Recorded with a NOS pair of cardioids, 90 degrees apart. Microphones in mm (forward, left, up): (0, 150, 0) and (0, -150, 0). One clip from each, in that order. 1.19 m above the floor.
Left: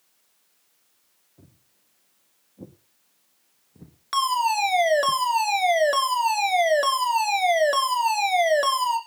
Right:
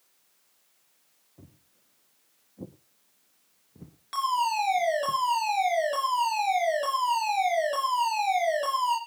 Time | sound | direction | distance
1.4 | footsteps | 20° right | 4 m
4.1 | a fire alarm | 60° left | 3.5 m